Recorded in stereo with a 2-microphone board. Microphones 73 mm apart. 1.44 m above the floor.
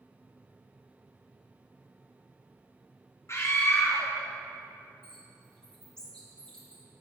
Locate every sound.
3.3 s a scream: 40° left (ahead or behind), 1.1 m
5.0 s a bird: 15° left (ahead or behind), 2.5 m